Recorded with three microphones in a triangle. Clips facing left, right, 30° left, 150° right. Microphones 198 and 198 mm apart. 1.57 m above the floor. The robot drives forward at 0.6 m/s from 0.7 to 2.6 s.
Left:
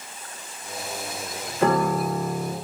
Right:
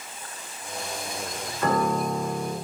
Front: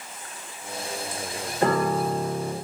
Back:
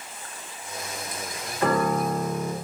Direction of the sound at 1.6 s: 85° left.